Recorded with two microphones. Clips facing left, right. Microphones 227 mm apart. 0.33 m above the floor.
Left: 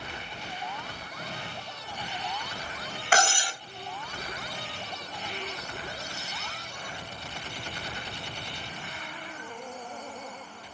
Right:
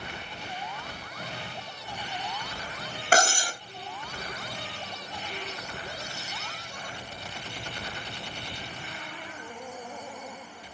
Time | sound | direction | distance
3.1 | cutlery clinking | 40° right (ahead or behind) | 0.6 m